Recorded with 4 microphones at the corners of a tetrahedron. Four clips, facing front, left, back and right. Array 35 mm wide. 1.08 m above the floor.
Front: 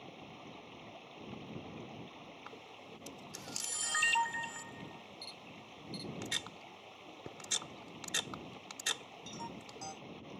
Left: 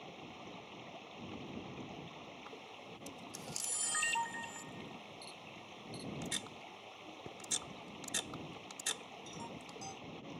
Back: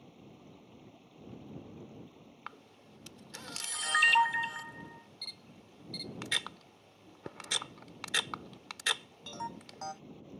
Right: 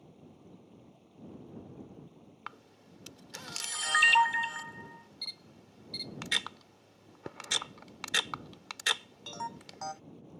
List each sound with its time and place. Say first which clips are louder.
0.0 s running water: left 6 dB, front 5 dB; 55° left
2.5 s a camera shutter: right 1 dB, even; 120° right